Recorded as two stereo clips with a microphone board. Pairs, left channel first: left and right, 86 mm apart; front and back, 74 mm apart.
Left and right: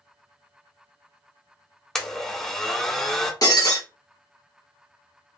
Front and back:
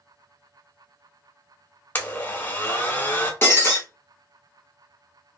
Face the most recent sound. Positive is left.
turn(degrees=60)